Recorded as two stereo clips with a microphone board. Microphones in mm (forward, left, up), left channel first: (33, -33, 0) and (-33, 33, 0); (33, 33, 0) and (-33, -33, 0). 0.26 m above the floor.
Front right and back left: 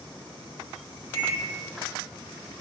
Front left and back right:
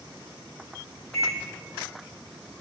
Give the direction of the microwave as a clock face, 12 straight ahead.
12 o'clock.